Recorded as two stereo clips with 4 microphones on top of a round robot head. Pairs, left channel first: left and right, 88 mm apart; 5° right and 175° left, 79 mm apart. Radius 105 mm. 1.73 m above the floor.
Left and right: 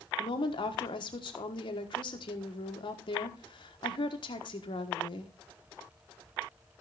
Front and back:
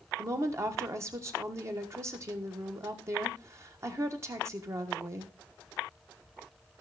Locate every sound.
0.2 s a woman speaking: 120° left, 1.3 m